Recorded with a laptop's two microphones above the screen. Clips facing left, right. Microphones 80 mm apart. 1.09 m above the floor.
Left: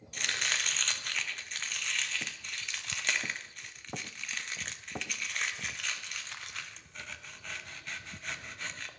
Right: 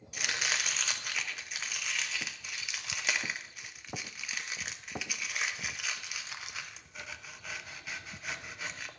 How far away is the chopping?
About 0.5 m.